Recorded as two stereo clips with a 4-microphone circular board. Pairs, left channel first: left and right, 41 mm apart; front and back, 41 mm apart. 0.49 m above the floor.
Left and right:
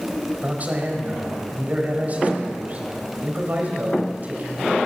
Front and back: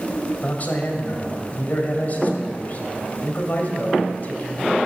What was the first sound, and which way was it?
A man speaking, 45° right.